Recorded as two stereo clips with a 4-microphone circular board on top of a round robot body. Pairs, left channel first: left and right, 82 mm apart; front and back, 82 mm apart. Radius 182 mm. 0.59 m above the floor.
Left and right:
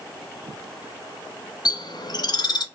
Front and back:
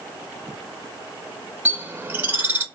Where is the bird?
115° left, 0.7 m.